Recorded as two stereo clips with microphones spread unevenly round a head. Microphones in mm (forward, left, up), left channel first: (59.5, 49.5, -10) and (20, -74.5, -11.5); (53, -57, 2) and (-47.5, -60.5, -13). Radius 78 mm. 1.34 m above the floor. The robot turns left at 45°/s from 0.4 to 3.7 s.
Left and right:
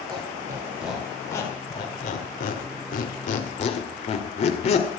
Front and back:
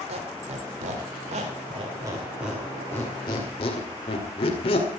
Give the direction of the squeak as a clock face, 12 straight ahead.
6 o'clock.